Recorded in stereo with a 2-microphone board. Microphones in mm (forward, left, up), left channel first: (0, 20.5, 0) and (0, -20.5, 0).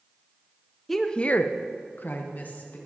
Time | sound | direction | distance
0.9 | a woman speaking | 5° left (ahead or behind) | 0.8 m